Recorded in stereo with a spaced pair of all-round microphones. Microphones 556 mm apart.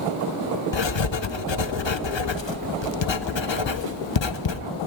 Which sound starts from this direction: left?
Writing, at 0.7 s.